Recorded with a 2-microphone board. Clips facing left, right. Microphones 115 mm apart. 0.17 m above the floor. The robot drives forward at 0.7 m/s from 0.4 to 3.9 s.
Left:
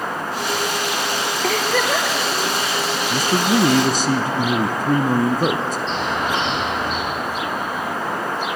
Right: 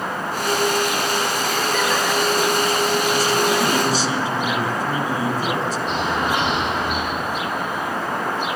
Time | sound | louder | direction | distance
1.4 | a giggle | left 1 dB | 60° left (ahead or behind) | 2.5 m
3.1 | a man speaking | even | 55° left (ahead or behind) | 1.9 m
5.9 | a bird | right 2 dB | 10° right (ahead or behind) | 9.5 m